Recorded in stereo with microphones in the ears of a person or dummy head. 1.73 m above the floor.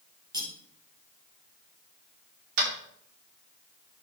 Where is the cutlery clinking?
20° right (ahead or behind), 3 m.